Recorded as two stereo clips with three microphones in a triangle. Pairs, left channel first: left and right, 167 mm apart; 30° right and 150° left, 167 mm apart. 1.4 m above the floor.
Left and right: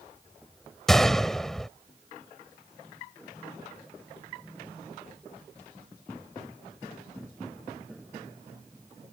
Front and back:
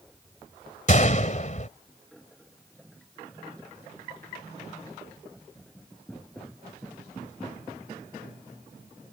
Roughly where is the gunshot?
Ahead.